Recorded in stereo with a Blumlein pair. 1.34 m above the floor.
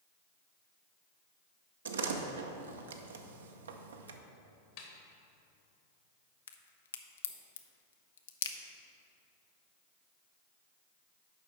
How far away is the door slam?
About 0.7 m.